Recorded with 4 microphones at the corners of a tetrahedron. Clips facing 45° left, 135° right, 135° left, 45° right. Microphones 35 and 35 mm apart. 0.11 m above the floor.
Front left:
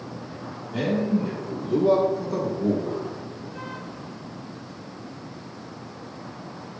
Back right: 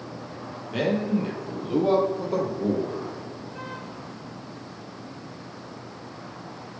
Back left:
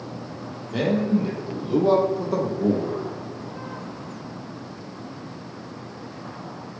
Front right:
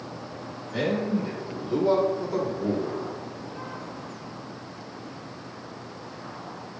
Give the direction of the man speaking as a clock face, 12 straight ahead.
6 o'clock.